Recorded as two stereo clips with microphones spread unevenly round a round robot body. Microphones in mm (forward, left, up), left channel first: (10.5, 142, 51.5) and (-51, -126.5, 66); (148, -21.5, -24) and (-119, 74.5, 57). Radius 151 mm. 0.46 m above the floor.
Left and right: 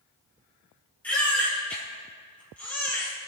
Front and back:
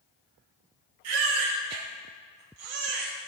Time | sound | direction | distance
1.0 | a baby crying | 160° left | 7 m